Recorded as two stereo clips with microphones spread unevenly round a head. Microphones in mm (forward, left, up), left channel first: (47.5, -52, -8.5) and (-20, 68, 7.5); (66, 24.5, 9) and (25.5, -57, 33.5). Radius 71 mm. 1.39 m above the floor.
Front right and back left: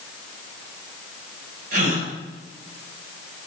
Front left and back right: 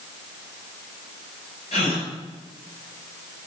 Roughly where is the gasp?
Left.